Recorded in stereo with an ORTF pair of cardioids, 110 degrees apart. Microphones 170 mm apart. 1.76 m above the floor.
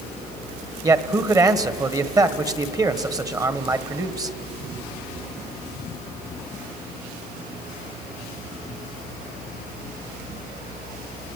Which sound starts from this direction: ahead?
A man speaking, at 0.8 s.